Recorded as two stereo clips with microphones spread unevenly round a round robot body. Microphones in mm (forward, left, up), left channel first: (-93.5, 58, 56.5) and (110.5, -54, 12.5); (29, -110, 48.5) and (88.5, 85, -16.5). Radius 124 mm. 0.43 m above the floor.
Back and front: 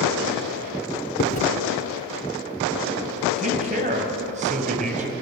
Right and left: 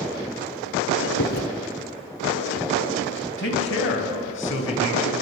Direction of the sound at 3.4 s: 80° right.